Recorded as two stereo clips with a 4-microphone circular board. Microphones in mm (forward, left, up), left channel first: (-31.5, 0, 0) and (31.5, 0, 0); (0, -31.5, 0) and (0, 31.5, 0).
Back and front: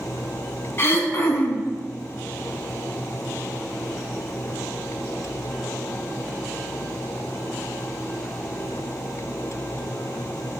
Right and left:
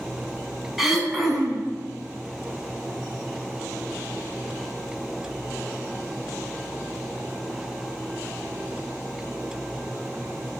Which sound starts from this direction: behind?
Throat clearing, at 0.8 s.